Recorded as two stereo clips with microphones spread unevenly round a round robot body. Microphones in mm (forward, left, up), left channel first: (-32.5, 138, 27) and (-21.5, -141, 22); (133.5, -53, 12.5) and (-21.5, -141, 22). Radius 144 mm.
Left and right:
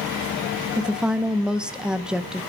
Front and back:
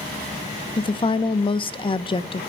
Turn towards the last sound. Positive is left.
turn(degrees=-5)